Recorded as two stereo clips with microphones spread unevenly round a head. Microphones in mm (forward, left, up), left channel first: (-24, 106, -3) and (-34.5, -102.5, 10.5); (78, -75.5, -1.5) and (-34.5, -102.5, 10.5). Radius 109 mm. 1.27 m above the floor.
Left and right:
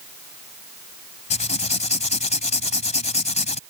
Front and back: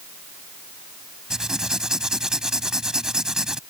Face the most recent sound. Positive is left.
turn(degrees=120)